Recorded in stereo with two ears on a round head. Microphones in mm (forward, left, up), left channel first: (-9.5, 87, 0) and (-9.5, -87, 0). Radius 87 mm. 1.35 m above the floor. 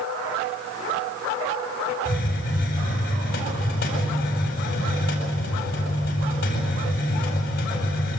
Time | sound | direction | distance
2.0 | a hiss | 55° left (ahead or behind) | 8.5 m